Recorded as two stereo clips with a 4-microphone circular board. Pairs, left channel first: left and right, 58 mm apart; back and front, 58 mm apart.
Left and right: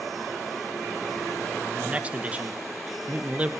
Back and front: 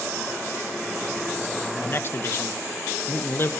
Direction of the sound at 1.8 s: 150° right.